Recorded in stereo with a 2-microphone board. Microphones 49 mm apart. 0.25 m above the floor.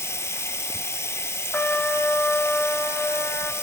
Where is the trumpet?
35° left (ahead or behind), 0.7 m.